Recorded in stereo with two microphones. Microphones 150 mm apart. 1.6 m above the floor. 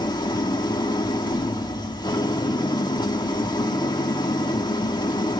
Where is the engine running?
30° left (ahead or behind), 1.9 m.